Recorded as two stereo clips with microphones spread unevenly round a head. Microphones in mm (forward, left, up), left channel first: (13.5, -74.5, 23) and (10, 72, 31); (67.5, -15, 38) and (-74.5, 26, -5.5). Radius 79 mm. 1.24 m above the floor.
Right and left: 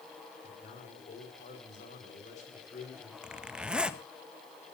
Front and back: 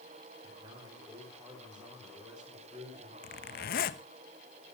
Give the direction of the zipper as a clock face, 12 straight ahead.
12 o'clock.